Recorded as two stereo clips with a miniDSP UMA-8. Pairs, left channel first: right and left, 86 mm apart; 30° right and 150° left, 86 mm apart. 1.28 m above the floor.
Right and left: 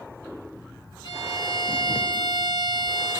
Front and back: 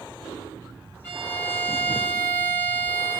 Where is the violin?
95° right, 2.0 m.